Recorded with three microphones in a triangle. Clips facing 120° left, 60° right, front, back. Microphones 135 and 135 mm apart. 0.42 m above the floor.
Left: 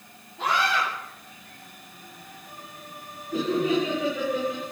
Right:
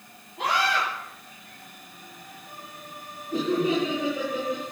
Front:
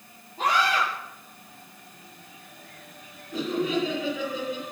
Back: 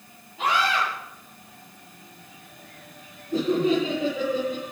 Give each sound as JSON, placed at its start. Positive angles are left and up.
{"t": 0.4, "sound": "a scream", "azimuth_deg": -50, "distance_m": 8.5}
{"t": 3.3, "sound": "laughter", "azimuth_deg": -120, "distance_m": 6.5}